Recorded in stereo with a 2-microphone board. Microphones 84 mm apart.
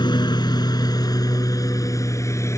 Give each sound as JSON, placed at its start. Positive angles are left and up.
{"t": 0.0, "sound": "a lawn mower", "side_deg": 65}